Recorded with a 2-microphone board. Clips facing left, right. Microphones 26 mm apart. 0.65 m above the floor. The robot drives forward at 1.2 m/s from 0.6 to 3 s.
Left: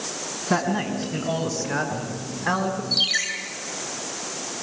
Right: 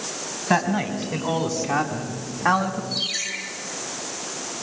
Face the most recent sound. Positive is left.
turn(degrees=35)  # may be behind; listen again after turning